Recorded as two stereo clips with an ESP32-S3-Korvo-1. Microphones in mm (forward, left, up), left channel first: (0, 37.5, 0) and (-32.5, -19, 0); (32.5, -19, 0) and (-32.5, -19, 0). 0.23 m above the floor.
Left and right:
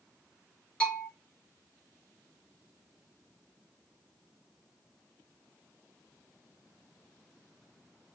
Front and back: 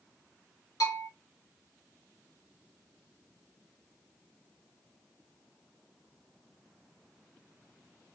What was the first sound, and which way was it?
A bell, 10° right.